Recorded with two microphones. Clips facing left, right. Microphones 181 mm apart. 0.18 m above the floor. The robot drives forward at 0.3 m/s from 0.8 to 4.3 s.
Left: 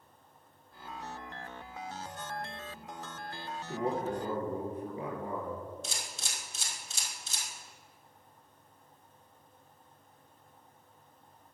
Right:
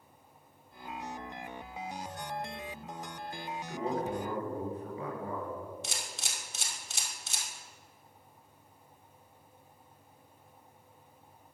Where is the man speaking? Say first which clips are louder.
Left 1 dB; 30° left (ahead or behind), 2.5 m; by 5.7 s 25° left (ahead or behind), 3 m.